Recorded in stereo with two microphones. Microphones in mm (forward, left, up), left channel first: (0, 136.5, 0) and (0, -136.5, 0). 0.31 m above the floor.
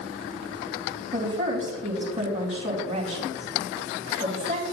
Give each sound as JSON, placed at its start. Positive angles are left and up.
{"t": 1.1, "sound": "a woman speaking", "side_deg": -25, "distance_m": 2.5}